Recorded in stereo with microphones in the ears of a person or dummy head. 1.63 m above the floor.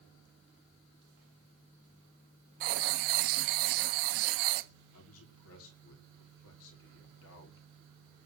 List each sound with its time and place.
2.6 s writing: 50° right (ahead or behind), 1.0 m
4.9 s a man speaking: 70° left (ahead or behind), 5.5 m